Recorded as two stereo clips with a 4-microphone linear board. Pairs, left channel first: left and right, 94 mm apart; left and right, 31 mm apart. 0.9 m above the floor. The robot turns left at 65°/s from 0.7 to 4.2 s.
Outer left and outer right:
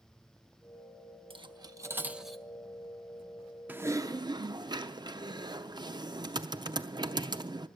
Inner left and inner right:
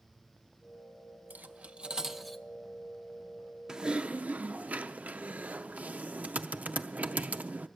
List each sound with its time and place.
1.3 s cutlery clinking: 60° right (ahead or behind), 0.7 m; by 2.4 s 10° left (ahead or behind), 0.7 m
3.7 s typing on a keyboard: 20° right, 0.6 m; by 7.7 s 55° right, 0.6 m